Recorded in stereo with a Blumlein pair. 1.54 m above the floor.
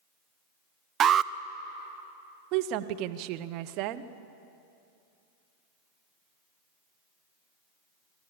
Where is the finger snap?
I don't hear a finger snap.